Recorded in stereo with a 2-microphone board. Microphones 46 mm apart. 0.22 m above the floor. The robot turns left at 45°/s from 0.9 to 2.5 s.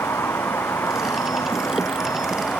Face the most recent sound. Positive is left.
turn(degrees=35)